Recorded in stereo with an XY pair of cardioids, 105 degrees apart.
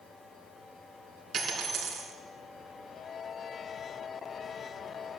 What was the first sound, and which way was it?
A dropped coin, 40° right.